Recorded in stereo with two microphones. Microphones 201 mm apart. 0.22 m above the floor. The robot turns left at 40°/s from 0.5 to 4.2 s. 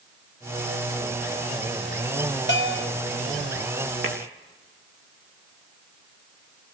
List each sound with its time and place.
2.5 s a bell: 70° left (ahead or behind), 2.5 m; by 2.9 s 80° left, 2.5 m
4.0 s tapping: 75° right (ahead or behind), 3.5 m; by 4.2 s 70° right (ahead or behind), 3.5 m